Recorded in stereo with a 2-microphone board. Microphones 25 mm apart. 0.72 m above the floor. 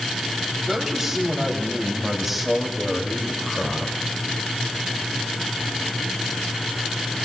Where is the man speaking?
20° right (ahead or behind), 3 m; by 4.0 s 10° left (ahead or behind), 2.5 m.